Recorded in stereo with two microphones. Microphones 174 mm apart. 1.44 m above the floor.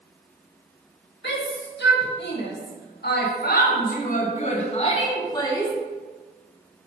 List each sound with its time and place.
1.2 s a shout: 85° left, 2.5 m; by 5.7 s 15° left (ahead or behind), 1.6 m